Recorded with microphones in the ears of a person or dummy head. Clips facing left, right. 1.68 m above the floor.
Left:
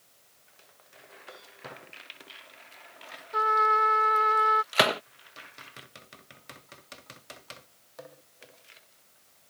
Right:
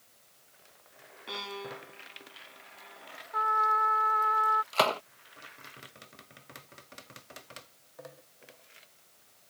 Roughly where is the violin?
Right.